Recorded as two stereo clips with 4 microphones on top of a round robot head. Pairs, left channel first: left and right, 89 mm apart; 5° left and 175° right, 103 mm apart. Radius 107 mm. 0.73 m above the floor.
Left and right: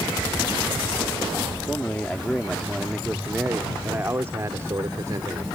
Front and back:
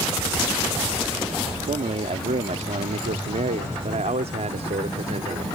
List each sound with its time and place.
1.7 s a man speaking: 165° left; by 5.5 s 145° right